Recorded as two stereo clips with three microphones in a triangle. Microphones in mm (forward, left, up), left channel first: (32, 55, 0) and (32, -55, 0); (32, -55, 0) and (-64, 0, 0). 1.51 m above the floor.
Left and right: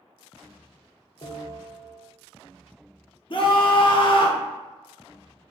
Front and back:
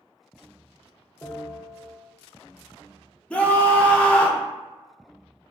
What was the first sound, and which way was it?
A bell, 40° left.